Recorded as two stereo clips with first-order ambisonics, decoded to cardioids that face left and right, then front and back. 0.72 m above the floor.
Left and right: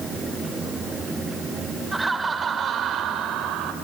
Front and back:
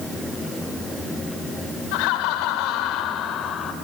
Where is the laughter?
5° right, 2.5 m; by 3.7 s 55° right, 2.5 m.